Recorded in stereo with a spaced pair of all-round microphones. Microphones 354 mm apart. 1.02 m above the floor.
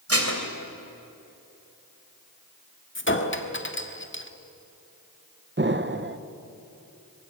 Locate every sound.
0.1 s dishes clattering: 40° right (ahead or behind), 3 m
3.0 s a clink: 35° left (ahead or behind), 1.4 m
5.6 s an explosion: 30° right (ahead or behind), 0.9 m